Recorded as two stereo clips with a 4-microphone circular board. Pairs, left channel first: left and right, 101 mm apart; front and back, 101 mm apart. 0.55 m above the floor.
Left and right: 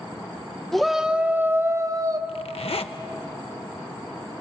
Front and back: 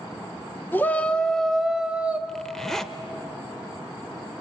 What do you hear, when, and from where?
0.7 s a shout: 5° left, 1.0 m; by 2.2 s 110° right, 1.2 m
2.3 s a zipper: 85° left, 1.0 m